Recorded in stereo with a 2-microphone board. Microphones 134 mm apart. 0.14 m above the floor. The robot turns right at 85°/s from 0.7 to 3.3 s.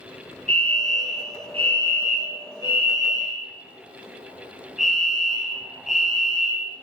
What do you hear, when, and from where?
0.5 s a fire alarm: 125° right, 4.5 m; by 6.7 s 95° left, 4.5 m